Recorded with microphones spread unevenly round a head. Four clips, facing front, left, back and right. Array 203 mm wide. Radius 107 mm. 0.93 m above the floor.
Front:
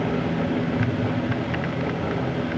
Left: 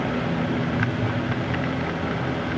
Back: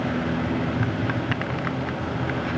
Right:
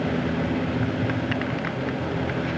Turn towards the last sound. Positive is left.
No sound to turn to.